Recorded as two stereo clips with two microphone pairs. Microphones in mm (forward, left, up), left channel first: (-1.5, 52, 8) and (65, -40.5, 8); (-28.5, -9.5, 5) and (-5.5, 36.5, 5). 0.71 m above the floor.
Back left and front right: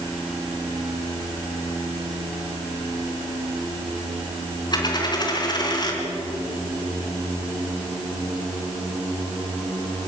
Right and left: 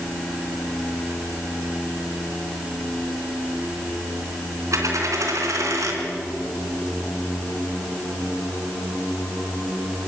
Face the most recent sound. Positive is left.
turn(degrees=75)